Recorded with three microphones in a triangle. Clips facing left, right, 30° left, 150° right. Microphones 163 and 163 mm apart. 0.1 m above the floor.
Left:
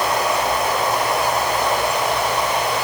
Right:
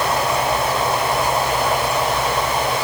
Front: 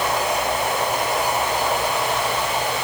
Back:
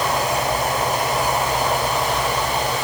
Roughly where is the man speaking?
I don't hear a man speaking.